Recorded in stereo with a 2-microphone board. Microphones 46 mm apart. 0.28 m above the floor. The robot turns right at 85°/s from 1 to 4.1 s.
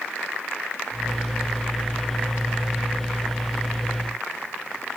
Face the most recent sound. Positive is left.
No sound to turn to.